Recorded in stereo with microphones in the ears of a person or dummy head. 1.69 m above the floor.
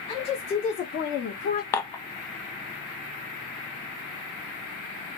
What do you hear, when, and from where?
0.1 s a woman speaking: 20° left (ahead or behind), 2.5 m; by 1.6 s 55° left (ahead or behind), 2 m
1.7 s dishes clattering: 15° left (ahead or behind), 1.1 m